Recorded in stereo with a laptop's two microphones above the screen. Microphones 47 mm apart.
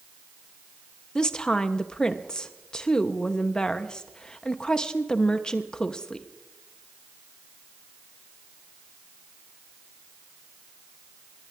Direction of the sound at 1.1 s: 15° left (ahead or behind).